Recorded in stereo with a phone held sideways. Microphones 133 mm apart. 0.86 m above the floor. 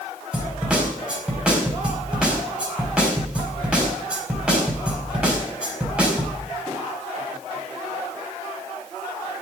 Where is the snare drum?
5° right (ahead or behind), 4.5 m.